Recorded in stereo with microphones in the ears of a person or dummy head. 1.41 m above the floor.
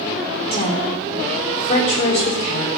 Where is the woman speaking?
60° left (ahead or behind), 5 m.